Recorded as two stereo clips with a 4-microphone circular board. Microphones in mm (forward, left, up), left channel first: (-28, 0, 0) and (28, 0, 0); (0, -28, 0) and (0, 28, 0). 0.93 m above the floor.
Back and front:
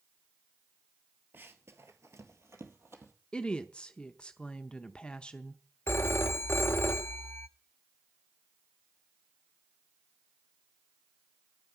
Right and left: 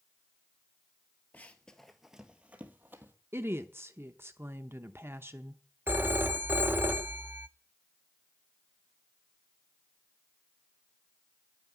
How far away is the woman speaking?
About 0.7 m.